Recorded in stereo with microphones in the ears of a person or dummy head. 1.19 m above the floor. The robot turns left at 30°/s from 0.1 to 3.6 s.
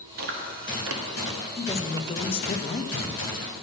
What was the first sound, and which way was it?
Chewing, 50° right (ahead or behind).